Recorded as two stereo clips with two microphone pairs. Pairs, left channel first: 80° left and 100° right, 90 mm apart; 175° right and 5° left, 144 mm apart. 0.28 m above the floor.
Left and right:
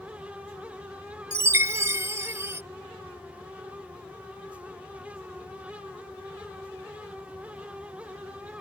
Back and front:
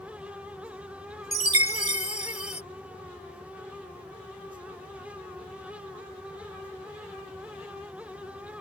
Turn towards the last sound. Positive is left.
turn(degrees=-150)